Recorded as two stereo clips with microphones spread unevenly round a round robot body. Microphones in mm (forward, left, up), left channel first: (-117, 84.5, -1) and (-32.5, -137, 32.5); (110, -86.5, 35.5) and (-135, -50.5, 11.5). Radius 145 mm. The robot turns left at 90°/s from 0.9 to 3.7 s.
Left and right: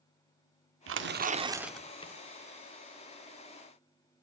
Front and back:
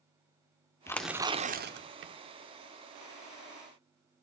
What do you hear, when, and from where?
0.9 s tearing paper: 90° right, 1.3 m; by 2.1 s 160° left, 1.3 m